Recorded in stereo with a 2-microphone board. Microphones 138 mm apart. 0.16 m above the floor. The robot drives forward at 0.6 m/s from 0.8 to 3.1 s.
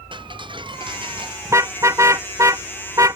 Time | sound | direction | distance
0.1 | ticking | 35° right (ahead or behind) | ?
1.4 | a car horn | 20° right (ahead or behind) | ?